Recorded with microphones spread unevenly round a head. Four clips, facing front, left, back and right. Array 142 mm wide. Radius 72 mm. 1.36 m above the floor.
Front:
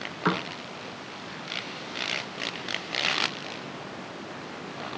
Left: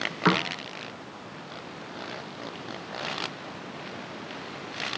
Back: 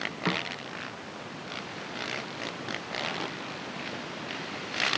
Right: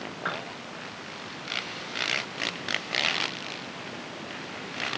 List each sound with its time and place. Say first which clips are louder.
0.2 s a piano: left 10 dB, front 5 dB; 75° left